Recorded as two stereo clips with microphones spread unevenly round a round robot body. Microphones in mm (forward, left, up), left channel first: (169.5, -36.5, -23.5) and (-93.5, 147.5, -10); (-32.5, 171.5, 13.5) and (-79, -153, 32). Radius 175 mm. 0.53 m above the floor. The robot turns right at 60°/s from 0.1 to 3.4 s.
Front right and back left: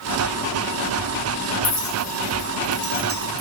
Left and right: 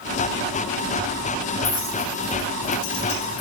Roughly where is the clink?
Ahead.